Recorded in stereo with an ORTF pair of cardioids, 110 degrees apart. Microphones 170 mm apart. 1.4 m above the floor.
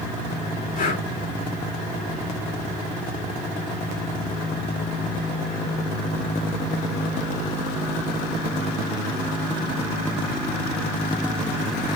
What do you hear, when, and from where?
0.8 s breathing: 50° left, 5 m